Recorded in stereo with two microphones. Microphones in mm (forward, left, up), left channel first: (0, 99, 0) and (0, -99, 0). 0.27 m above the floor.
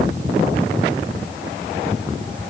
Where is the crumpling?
I don't hear crumpling.